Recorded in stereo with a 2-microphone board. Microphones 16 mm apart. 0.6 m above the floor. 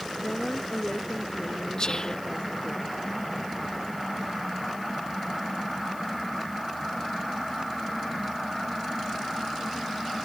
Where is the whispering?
40° left (ahead or behind).